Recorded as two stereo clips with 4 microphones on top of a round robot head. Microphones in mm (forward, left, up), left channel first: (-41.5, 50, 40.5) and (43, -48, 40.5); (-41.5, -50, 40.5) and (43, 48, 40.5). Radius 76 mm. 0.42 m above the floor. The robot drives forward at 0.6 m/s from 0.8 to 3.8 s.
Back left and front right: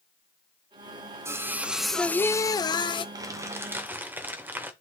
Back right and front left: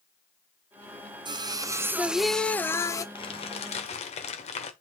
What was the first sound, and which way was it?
Singing, 10° left.